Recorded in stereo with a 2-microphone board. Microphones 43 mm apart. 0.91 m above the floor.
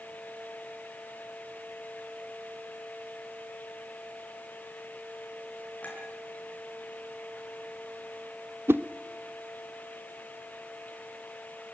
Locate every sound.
5.8 s a clink: 30° left (ahead or behind), 6 m
8.7 s a whoosh: 65° right (ahead or behind), 0.6 m